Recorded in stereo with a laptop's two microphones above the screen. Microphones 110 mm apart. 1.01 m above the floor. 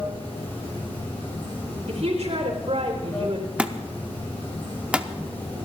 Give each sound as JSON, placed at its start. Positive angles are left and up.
{"t": 0.0, "sound": "running water", "side_deg": 20, "distance_m": 8.0}
{"t": 1.9, "sound": "a woman speaking", "side_deg": -75, "distance_m": 4.0}
{"t": 3.6, "sound": "a thud", "side_deg": -10, "distance_m": 0.8}